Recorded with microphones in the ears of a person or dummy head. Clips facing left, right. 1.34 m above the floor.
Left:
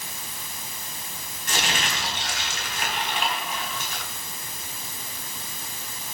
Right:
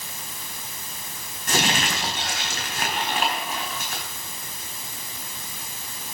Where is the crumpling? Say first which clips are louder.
Right 5 dB; 50° right (ahead or behind), 4 m.